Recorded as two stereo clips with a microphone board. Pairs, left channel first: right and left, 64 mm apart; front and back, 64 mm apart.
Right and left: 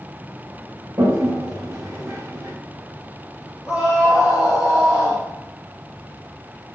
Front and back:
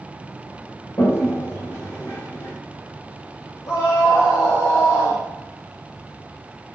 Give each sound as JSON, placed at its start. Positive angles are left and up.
{"t": 1.0, "sound": "a toilet flushing", "azimuth_deg": 45, "distance_m": 5.5}
{"t": 3.7, "sound": "a scream", "azimuth_deg": 20, "distance_m": 3.5}